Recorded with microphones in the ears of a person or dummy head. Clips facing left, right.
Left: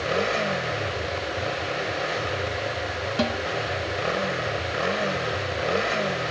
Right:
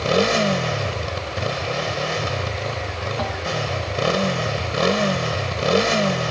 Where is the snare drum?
35° left (ahead or behind).